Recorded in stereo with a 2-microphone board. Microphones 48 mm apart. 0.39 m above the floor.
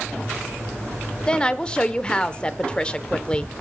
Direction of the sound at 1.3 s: 20° left (ahead or behind).